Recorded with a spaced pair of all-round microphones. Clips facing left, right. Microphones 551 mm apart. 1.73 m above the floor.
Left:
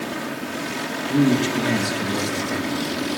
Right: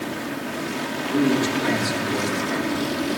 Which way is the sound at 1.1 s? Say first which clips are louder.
Left 2 dB; 50° left (ahead or behind).